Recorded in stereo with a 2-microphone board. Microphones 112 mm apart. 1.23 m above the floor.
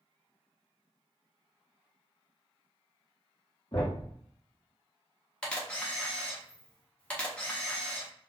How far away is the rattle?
No rattle in this recording.